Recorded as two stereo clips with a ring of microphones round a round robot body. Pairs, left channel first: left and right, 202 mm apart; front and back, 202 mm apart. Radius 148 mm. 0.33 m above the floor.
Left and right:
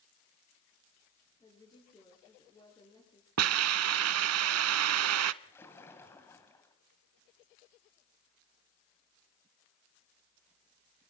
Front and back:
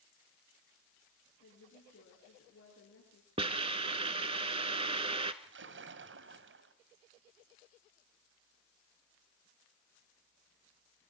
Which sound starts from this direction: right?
A hiss, at 3.4 s.